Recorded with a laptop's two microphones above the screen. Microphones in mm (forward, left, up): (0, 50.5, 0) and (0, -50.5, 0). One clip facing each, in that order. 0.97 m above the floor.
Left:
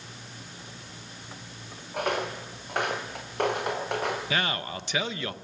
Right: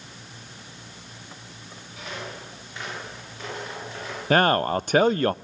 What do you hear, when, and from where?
1.9 s footsteps: 60° left (ahead or behind), 4.5 m; by 4.2 s 65° left (ahead or behind), 6 m
4.3 s a man speaking: 50° right (ahead or behind), 0.5 m